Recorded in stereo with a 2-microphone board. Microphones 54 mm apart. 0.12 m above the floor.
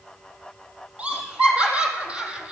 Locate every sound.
1.0 s laughter: 25° right (ahead or behind), 4.5 m; by 2.5 s 15° right (ahead or behind), 3 m